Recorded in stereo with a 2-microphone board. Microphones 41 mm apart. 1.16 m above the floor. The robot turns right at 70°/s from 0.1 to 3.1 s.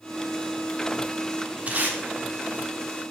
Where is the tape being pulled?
40° right (ahead or behind), 1.4 m; by 2.0 s 60° right (ahead or behind), 1.4 m.